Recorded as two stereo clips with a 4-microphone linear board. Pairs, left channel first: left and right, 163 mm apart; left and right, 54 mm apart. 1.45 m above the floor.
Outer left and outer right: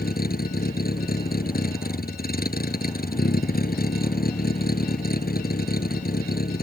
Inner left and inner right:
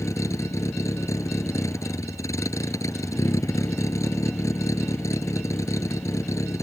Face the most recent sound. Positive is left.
turn(degrees=65)  # may be behind; listen again after turning